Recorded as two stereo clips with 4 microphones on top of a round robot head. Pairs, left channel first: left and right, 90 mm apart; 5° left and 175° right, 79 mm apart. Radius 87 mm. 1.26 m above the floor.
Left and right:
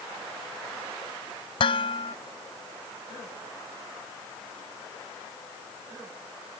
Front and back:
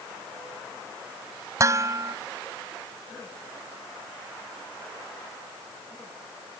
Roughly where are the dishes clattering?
Behind left.